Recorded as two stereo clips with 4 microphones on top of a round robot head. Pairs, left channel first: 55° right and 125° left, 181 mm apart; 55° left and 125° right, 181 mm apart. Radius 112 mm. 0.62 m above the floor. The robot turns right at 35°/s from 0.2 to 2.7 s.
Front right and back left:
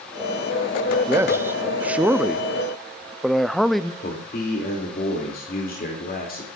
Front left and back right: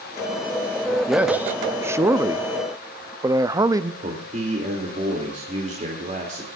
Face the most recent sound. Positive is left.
turn(degrees=-80)